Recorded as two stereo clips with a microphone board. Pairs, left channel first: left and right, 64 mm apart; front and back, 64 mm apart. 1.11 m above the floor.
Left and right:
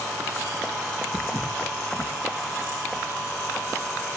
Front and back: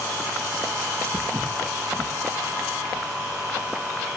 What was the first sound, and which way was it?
Footsteps, 150° left.